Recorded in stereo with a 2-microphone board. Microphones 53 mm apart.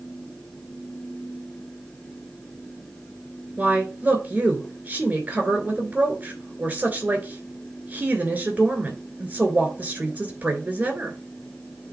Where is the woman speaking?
30° right (ahead or behind), 2.5 m.